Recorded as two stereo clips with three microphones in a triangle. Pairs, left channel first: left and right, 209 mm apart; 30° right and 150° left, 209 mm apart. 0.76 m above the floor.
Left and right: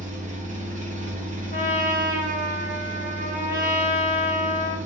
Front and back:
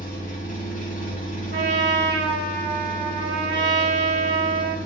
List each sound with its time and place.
0.0 s an engine running: 55° right, 1.0 m
1.5 s a trumpet: 125° left, 1.5 m